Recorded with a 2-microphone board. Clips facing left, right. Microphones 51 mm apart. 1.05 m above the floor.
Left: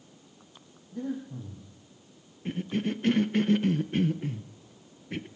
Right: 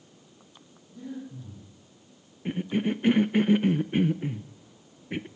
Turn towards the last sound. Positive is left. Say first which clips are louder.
# right 3 dB
turn(degrees=-15)  # may be behind; listen again after turning